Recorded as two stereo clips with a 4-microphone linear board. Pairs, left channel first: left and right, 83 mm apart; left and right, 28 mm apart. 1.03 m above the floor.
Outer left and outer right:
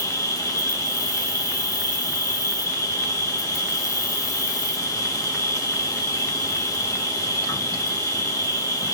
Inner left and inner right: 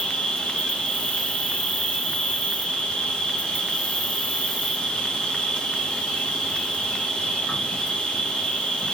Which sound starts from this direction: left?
An insect, at 0.0 s.